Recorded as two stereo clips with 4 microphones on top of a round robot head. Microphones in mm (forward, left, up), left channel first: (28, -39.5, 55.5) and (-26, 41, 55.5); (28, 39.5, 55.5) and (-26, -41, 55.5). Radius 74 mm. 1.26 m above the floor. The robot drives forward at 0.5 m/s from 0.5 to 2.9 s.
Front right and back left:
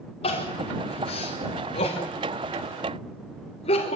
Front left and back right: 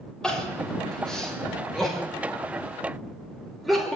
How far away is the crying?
About 6.5 m.